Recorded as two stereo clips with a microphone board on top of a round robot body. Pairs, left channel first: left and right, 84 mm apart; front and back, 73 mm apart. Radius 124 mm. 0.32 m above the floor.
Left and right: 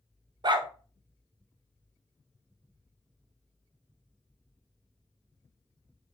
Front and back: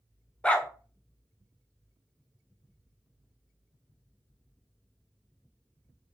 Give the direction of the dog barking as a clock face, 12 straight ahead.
2 o'clock.